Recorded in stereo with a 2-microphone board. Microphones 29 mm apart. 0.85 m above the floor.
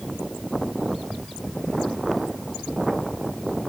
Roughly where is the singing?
No singing in this recording.